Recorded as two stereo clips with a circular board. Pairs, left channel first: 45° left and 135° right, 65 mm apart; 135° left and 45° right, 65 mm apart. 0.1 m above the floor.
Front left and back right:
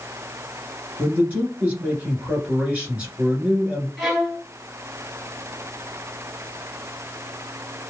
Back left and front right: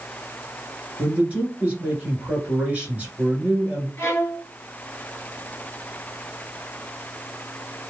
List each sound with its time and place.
1.0 s a man speaking: 85° right, 1.9 m
4.0 s a violin: 145° left, 1.6 m